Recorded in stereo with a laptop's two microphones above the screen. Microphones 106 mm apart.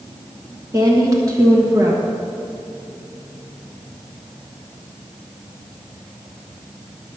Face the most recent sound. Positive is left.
turn(degrees=-30)  # may be behind; listen again after turning